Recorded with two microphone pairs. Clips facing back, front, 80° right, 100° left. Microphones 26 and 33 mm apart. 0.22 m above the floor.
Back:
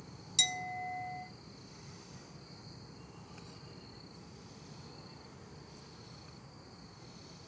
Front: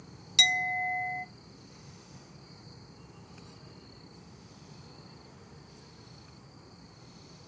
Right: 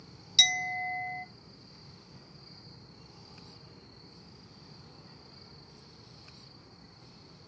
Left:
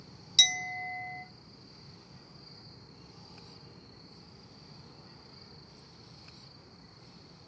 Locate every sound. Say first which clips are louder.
0.4 s a clink: front 9 dB, right 1 dB; straight ahead, 0.6 m